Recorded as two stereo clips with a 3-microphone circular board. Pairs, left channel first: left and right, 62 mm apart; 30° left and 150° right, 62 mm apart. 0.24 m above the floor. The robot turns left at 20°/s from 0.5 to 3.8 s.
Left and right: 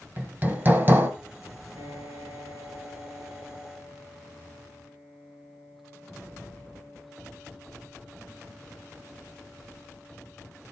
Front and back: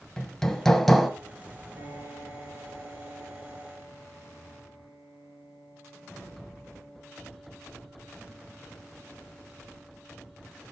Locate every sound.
0.2 s hammering: 45° right, 1.3 m; by 1.1 s 60° right, 1.3 m
1.8 s a piano: 120° right, 4.5 m; by 10.6 s 160° right, 4.5 m